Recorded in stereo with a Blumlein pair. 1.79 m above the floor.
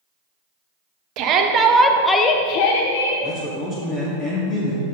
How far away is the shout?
About 0.9 m.